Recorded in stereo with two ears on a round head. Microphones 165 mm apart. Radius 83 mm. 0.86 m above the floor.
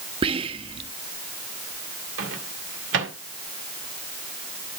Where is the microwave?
70° right (ahead or behind), 2 m.